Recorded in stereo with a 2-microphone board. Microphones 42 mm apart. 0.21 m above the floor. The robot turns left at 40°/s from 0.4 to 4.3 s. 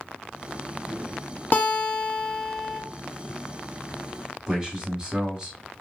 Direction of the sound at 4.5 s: 20° right (ahead or behind).